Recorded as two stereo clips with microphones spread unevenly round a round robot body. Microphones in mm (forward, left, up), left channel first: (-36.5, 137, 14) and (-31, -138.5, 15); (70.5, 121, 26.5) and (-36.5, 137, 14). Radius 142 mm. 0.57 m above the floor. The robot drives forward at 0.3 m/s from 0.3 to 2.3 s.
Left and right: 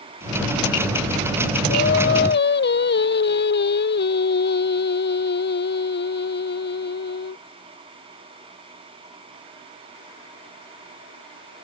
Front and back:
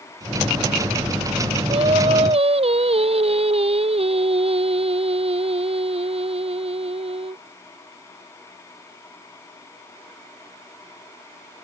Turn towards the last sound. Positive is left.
turn(degrees=145)